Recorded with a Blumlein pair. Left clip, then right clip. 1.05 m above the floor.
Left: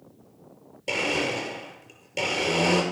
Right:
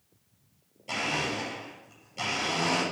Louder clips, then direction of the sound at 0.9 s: Left 4 dB; 40° left.